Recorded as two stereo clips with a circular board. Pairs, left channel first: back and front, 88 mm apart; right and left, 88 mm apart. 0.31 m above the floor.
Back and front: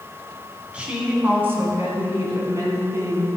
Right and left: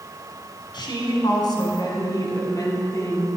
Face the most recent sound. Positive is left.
turn(degrees=-45)